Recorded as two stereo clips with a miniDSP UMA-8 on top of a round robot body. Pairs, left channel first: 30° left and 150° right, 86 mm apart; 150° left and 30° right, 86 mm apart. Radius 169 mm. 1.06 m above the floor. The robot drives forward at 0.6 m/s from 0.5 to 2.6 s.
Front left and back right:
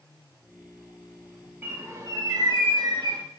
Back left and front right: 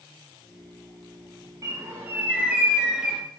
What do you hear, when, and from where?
1.6 s a bird: 80° right, 1.1 m; by 3.2 s 110° right, 1.2 m